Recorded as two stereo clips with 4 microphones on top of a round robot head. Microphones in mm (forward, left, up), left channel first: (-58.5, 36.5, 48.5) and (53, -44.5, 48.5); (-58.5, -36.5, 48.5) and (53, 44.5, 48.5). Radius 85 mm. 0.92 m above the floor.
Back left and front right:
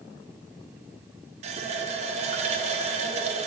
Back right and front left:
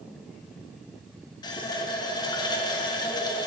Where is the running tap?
80° right, 0.6 m.